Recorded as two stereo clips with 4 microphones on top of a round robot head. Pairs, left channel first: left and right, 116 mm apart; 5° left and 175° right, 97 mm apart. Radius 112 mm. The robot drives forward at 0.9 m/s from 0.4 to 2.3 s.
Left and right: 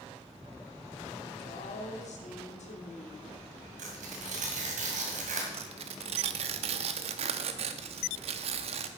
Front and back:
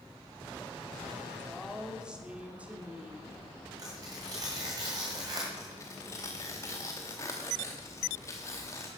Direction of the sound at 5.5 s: 65° right.